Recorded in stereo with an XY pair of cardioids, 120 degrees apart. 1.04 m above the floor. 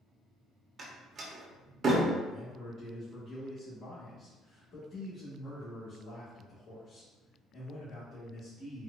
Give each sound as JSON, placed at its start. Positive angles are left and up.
{"t": 0.8, "sound": "a door slam", "azimuth_deg": -40, "distance_m": 1.0}
{"t": 2.3, "sound": "a man speaking", "azimuth_deg": 50, "distance_m": 1.4}